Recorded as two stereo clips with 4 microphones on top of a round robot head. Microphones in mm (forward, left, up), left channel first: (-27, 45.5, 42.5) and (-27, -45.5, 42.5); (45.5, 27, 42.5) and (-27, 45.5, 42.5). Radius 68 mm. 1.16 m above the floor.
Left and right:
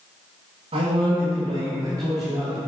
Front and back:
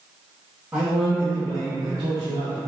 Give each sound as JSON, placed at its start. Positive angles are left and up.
{"t": 0.7, "sound": "a man speaking", "azimuth_deg": -115, "distance_m": 1.3}